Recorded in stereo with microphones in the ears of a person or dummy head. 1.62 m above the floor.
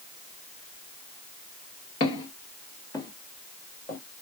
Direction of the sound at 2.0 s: 30° left (ahead or behind).